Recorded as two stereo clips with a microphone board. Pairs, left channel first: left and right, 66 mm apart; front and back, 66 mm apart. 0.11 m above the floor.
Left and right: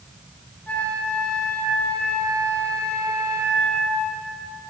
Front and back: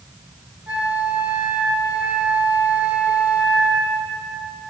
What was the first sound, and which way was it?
A flute, 130° left.